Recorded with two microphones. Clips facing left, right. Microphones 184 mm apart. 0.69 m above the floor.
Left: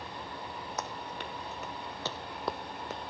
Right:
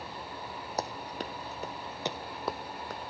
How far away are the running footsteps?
About 1.6 m.